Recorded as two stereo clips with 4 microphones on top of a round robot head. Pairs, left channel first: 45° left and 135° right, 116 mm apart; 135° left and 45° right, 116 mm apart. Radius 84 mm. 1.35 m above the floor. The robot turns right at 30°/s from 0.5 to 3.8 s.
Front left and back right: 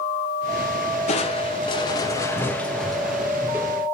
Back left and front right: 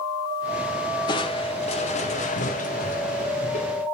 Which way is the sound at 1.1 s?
80° left.